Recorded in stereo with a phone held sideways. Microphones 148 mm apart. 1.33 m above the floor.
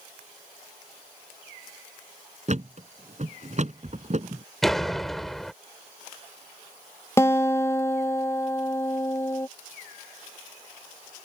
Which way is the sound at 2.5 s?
50° right (ahead or behind).